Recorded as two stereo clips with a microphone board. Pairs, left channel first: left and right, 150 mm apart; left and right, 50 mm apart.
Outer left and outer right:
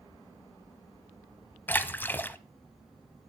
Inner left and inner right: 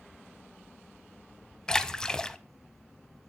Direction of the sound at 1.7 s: 10° left (ahead or behind).